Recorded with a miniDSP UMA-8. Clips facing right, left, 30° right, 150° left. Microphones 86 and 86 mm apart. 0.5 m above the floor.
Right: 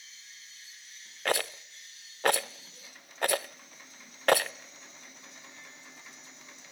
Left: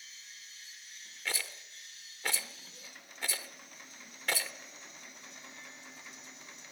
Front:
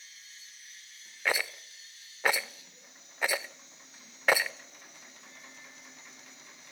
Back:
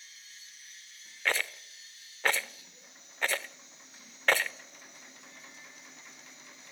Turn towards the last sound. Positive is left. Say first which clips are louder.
# right 11 dB, front 1 dB
turn(degrees=-110)